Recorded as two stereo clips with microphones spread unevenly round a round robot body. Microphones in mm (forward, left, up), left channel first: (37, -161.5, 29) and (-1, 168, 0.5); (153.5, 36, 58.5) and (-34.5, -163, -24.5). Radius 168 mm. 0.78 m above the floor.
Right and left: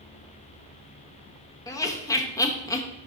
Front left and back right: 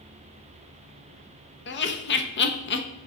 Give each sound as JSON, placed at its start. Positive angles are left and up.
{"t": 1.7, "sound": "laughter", "azimuth_deg": 0, "distance_m": 0.8}